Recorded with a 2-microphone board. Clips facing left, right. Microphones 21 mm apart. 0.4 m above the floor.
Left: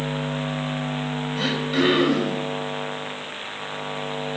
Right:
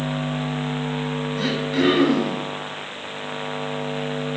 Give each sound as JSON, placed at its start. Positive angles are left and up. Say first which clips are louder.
{"t": 1.4, "sound": "throat clearing", "louder": "even", "side_deg": 35, "distance_m": 2.0}